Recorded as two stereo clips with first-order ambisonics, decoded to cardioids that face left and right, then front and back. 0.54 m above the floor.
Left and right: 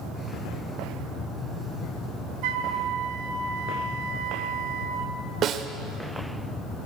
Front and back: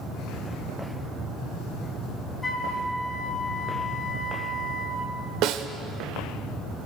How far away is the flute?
About 1.2 m.